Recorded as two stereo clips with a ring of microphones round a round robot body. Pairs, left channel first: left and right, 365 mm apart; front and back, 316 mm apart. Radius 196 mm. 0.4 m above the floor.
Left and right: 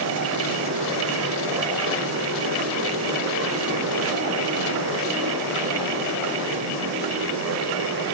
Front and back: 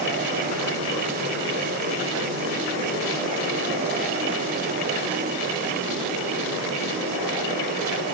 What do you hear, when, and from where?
Only background noise.